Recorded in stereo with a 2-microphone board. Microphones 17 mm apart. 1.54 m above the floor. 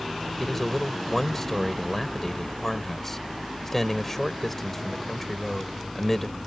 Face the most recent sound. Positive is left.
turn(degrees=15)  # may be behind; listen again after turning